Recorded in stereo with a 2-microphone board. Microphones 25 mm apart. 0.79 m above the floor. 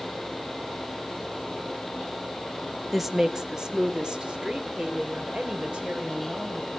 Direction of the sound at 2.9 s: 10° right (ahead or behind).